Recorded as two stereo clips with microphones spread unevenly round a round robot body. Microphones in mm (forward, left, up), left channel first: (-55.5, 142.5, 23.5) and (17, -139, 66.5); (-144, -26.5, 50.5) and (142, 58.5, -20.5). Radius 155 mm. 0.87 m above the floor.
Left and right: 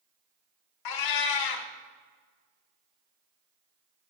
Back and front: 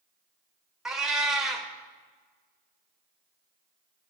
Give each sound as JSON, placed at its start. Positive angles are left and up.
{"t": 0.8, "sound": "a cat meowing", "azimuth_deg": 115, "distance_m": 0.8}